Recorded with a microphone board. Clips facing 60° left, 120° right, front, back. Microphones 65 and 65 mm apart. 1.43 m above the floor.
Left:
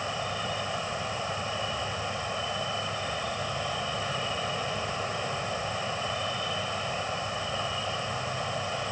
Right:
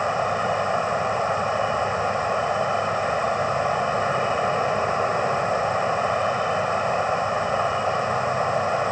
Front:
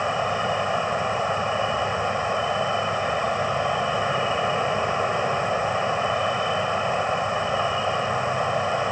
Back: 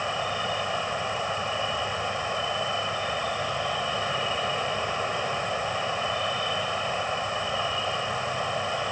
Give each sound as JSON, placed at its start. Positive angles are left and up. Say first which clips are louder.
{"t": 0.0, "sound": "an insect", "louder": "right 10 dB, front 5 dB", "azimuth_deg": -70}